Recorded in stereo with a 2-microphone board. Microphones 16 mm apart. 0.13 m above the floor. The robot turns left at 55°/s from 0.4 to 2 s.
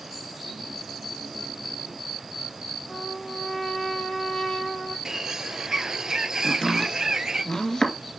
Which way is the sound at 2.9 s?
35° left (ahead or behind).